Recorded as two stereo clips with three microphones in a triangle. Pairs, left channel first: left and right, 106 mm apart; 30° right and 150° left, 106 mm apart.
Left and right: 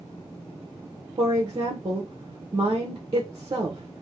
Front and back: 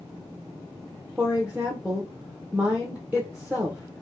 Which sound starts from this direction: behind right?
A woman speaking, at 1.2 s.